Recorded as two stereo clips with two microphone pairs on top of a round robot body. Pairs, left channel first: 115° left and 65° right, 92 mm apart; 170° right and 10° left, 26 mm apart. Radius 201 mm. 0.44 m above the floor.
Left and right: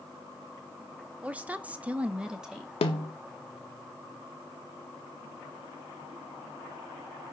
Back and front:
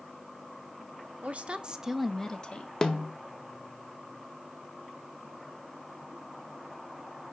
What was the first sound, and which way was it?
A woman speaking, straight ahead.